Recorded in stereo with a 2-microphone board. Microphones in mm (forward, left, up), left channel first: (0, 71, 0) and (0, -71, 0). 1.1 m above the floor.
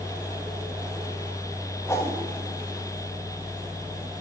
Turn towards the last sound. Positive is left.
turn(degrees=20)  # may be behind; listen again after turning